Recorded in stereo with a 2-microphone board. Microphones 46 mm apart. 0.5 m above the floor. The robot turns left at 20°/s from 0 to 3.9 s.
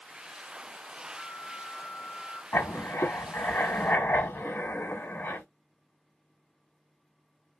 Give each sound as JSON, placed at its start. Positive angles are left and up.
{"t": 1.1, "sound": "a flute", "side_deg": 30, "distance_m": 1.6}
{"t": 2.5, "sound": "writing", "side_deg": 80, "distance_m": 0.9}